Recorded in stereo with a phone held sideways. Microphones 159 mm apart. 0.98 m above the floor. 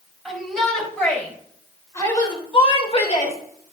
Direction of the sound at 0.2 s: Centre (ahead or behind).